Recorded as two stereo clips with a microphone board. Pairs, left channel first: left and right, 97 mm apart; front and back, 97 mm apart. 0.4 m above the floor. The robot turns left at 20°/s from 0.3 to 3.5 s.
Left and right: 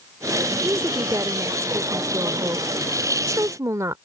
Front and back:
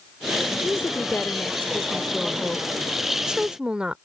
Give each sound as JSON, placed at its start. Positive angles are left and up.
{"t": 0.6, "sound": "a woman speaking", "azimuth_deg": -50}